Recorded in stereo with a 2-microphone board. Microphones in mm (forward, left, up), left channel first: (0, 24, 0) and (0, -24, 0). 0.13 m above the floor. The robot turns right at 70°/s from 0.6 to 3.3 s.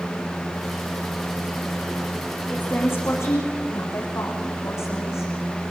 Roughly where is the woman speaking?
Ahead left.